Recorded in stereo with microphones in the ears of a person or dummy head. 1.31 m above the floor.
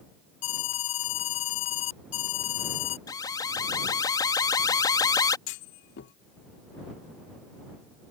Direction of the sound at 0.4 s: 70° left (ahead or behind).